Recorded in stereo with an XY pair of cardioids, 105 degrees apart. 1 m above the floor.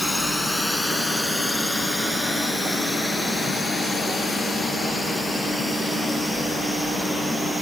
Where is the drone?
10° left; by 7.6 s 5° right.